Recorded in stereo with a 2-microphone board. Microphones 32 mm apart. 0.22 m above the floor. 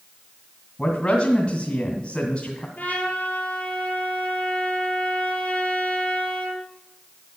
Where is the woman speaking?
40° left (ahead or behind), 2.0 m.